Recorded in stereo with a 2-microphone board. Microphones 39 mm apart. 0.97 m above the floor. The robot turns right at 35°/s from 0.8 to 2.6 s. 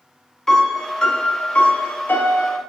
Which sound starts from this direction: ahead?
A piano, at 0.5 s.